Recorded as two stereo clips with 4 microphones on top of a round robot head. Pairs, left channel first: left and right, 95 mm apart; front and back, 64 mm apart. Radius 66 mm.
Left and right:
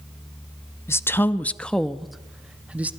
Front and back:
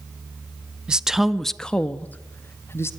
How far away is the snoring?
I don't hear snoring.